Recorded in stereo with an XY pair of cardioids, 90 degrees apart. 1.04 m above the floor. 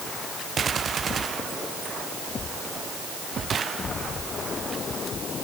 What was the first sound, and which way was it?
Only background noise.